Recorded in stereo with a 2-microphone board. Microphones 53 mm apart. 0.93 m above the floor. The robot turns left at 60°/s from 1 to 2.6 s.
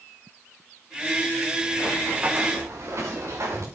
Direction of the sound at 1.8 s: 5° right (ahead or behind).